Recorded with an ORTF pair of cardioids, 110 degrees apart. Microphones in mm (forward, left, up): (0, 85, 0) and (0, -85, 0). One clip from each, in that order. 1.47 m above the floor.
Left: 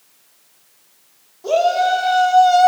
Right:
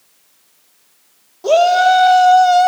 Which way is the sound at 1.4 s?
45° right.